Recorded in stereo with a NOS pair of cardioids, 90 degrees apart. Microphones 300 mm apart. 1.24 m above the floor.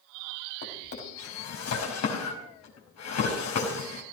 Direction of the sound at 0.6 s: 60° left.